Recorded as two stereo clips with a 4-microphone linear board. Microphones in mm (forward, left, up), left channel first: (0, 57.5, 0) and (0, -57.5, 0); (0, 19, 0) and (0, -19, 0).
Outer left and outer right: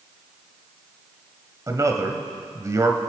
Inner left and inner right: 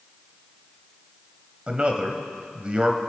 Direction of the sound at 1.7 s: 30° right (ahead or behind).